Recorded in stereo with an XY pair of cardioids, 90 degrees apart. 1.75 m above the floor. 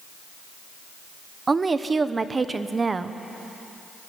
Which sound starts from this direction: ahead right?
A woman speaking, at 1.5 s.